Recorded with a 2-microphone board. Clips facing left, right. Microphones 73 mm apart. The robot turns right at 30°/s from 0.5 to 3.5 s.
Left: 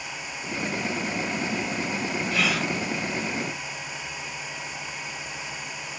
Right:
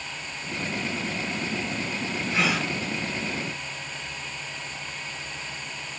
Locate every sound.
2.3 s a gasp: 30° right (ahead or behind), 0.5 m; by 2.7 s 25° right (ahead or behind), 0.5 m